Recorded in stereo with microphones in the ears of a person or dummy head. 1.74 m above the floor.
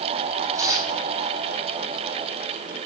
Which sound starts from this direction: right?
Tearing paper, at 0.5 s.